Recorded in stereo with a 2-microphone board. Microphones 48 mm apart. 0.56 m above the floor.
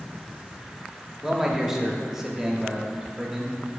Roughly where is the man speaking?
Centre.